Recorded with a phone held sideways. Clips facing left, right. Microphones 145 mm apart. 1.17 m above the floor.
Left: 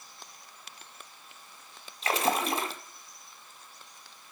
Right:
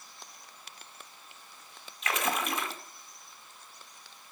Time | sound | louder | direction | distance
2.0 | a splash | left 4 dB | 35° left (ahead or behind) | 1.8 m